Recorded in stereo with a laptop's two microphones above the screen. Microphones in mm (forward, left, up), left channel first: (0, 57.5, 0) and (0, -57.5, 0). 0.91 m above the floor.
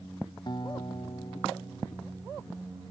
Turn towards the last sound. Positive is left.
turn(degrees=40)  # may be behind; listen again after turning